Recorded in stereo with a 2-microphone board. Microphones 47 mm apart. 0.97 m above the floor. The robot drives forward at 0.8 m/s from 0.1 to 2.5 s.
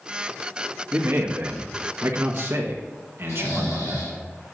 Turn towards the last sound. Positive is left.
turn(degrees=80)